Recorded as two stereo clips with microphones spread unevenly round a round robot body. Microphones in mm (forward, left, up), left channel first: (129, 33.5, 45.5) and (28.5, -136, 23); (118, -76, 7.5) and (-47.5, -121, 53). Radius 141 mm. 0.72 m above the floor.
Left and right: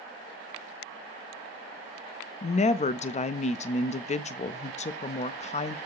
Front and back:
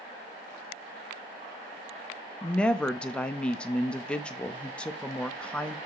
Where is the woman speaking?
55° left, 0.5 m.